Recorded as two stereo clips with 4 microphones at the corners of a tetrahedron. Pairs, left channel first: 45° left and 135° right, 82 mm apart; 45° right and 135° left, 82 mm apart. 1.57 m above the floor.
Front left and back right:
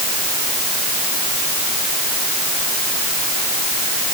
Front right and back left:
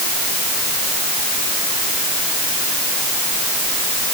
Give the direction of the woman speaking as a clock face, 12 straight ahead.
No woman speaking in this recording.